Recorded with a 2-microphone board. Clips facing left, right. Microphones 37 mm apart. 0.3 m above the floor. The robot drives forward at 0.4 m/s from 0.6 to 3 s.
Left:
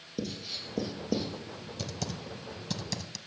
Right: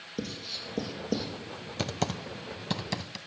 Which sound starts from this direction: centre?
Writing, at 0.2 s.